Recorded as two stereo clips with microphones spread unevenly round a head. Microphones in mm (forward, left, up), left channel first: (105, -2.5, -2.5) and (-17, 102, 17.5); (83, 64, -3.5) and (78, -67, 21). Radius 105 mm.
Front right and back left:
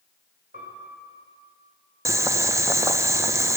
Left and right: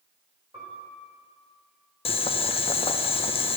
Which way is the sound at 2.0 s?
65° left.